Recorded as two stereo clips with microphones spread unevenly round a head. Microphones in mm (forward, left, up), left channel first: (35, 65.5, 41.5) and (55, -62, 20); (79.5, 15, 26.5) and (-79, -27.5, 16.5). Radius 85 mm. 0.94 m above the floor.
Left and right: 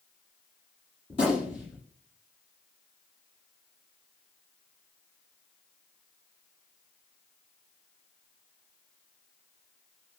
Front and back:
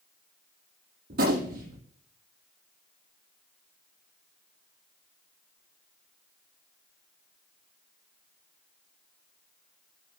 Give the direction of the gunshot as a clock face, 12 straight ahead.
7 o'clock.